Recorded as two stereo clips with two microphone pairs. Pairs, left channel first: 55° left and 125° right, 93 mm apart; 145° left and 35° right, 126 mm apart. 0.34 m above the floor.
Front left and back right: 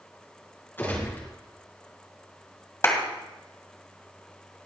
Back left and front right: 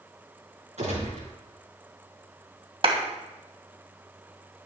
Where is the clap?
Straight ahead, 2 m.